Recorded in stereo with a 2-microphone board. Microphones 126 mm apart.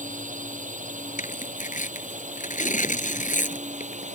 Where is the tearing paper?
80° left.